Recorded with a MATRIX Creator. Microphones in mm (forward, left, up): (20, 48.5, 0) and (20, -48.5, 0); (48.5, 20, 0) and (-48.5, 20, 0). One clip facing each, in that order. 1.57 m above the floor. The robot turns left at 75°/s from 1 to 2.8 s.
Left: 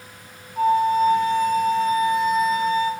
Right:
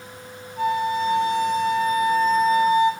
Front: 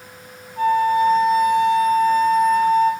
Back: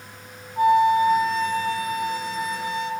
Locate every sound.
0.6 s a flute: 115° left, 0.8 m; by 2.9 s 20° right, 0.8 m